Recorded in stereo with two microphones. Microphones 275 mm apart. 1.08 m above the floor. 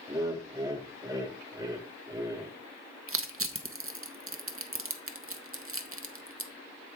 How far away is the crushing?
About 0.6 m.